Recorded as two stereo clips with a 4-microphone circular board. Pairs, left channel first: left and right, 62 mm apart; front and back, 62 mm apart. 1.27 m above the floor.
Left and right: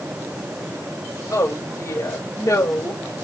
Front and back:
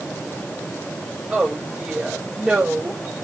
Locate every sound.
1.3 s a woman speaking: 110° left, 5 m